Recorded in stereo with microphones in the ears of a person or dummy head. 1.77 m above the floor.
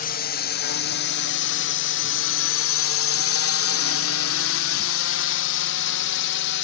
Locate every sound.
0.0 s a drone: 40° left (ahead or behind); by 6.6 s 60° left (ahead or behind)